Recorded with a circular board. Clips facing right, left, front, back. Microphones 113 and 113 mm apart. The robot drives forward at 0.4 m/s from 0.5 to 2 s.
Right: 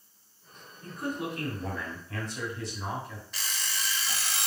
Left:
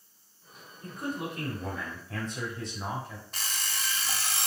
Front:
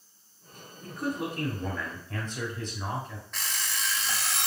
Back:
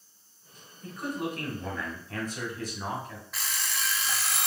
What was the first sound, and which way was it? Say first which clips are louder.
A man speaking: right 1 dB, front 1 dB; 65° left.